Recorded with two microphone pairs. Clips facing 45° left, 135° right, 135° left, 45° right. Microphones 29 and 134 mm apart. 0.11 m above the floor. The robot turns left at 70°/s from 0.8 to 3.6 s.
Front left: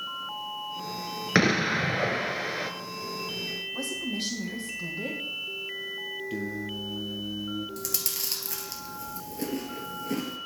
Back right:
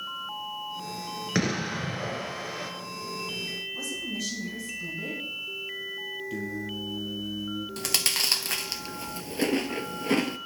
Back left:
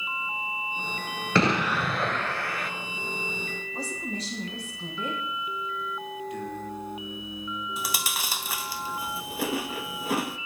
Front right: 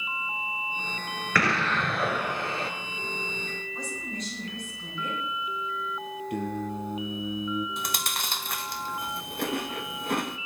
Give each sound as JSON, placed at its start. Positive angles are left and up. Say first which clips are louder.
{"t": 1.4, "sound": "an explosion", "louder": "front left 6 dB, back left 3 dB", "azimuth_deg": 85, "distance_m": 1.0}
{"t": 3.7, "sound": "a woman speaking", "louder": "front left 1 dB, back left 5 dB", "azimuth_deg": 80, "distance_m": 4.5}
{"t": 6.3, "sound": "singing", "louder": "even, front right 3 dB", "azimuth_deg": -30, "distance_m": 1.4}
{"t": 7.8, "sound": "chewing", "louder": "back right 7 dB, back left 1 dB", "azimuth_deg": -135, "distance_m": 0.5}